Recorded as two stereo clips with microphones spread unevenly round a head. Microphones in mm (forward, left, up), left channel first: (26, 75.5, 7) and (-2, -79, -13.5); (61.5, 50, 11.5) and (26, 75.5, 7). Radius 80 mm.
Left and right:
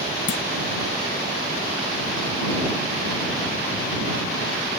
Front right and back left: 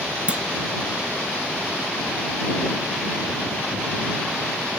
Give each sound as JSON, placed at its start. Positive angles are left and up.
{"t": 0.3, "sound": "a clunk", "azimuth_deg": 80}